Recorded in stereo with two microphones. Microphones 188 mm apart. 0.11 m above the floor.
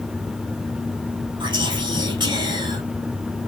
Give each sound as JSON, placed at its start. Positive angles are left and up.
{"t": 1.4, "sound": "whispering", "side_deg": -25, "distance_m": 3.0}